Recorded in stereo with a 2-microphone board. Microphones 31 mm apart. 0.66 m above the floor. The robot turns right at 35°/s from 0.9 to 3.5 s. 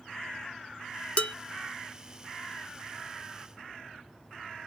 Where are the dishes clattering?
45° left (ahead or behind), 0.7 m; by 1.4 s 40° left (ahead or behind), 0.7 m.